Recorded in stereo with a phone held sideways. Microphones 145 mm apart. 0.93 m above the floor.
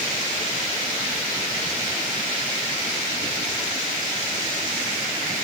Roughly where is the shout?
No shout in this recording.